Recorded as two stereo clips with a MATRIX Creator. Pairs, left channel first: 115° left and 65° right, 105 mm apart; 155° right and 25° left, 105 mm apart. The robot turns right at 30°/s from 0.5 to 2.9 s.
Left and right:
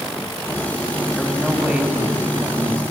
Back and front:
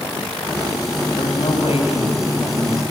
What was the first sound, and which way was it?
A man speaking, 165° right.